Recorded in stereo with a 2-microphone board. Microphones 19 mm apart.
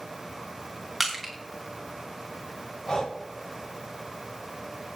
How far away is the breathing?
About 5 m.